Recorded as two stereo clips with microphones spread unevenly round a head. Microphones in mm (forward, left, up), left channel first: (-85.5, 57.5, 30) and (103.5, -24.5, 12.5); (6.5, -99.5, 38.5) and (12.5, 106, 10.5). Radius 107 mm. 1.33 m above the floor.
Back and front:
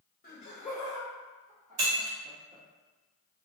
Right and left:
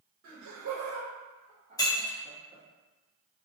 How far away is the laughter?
About 0.7 m.